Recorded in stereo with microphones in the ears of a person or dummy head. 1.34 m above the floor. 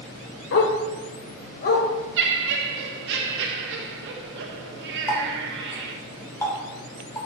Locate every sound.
0.5 s a dog barking: 55° left (ahead or behind), 1.5 m; by 1.9 s 50° left (ahead or behind), 2.5 m
2.2 s laughter: 60° right (ahead or behind), 0.8 m
5.1 s a running tap: 15° left (ahead or behind), 3 m